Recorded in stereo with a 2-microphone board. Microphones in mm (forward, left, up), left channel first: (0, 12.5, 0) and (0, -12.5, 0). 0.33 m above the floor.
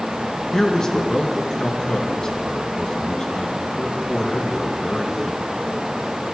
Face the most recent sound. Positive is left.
turn(degrees=25)  # may be behind; listen again after turning